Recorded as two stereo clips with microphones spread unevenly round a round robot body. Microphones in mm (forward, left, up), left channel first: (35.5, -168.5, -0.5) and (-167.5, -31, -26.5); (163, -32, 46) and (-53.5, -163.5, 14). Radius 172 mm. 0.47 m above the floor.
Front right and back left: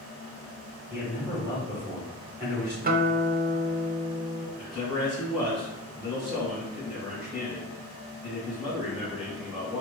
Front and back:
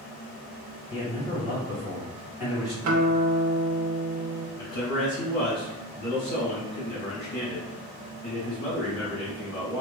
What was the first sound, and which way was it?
A man speaking, 90° left.